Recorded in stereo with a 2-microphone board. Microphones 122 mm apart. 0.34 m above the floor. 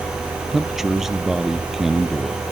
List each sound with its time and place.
0.5 s a man speaking: 5° right (ahead or behind)